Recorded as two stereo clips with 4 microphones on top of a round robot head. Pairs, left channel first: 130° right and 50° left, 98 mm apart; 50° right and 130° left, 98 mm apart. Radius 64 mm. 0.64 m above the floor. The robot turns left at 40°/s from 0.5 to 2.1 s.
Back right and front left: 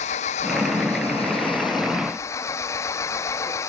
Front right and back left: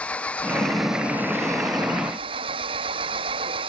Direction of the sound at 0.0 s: 130° right.